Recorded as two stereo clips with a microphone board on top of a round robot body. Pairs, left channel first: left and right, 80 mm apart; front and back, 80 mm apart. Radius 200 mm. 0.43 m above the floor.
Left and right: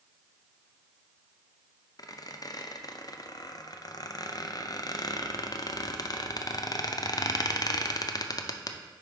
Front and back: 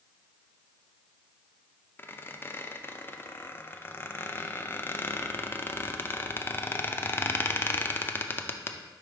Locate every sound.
2.0 s a squeak: 60° left, 0.6 m